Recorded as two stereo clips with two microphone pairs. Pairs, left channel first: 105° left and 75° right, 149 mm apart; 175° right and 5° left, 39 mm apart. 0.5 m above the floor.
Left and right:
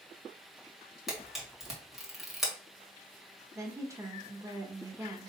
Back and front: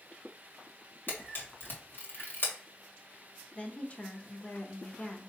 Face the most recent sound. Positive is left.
turn(degrees=-140)